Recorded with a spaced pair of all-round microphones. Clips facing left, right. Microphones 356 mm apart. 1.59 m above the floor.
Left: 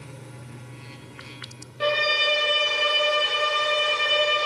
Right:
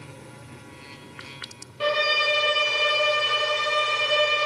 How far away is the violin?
About 0.6 m.